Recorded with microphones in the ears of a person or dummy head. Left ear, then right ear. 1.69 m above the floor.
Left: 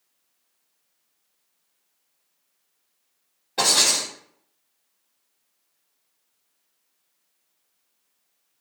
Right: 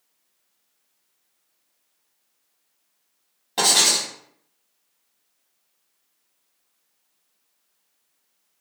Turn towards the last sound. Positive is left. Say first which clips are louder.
# right 1 dB
turn(degrees=-35)  # may be behind; listen again after turning